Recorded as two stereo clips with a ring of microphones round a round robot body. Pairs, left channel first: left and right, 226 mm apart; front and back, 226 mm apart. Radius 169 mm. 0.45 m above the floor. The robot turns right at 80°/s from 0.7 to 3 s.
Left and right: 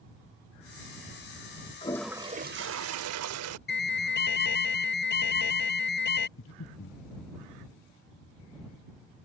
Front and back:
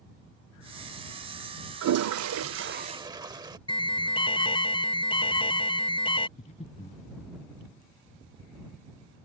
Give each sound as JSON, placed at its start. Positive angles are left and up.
{"t": 1.8, "sound": "a toilet flushing", "azimuth_deg": 160}
{"t": 3.7, "sound": "an alarm", "azimuth_deg": 65}
{"t": 6.4, "sound": "breathing", "azimuth_deg": 60}